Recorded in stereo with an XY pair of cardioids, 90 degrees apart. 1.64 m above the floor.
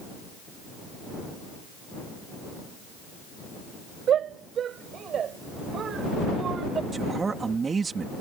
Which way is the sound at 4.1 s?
70° right.